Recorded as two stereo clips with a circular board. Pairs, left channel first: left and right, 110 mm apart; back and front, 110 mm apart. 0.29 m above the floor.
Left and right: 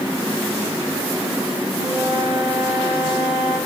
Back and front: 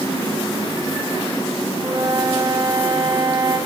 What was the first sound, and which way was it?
A flute, 45° left.